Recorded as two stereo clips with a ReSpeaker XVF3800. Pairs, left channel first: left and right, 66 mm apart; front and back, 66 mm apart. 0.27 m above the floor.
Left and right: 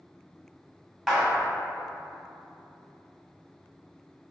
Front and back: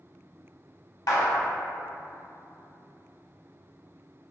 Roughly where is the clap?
Ahead.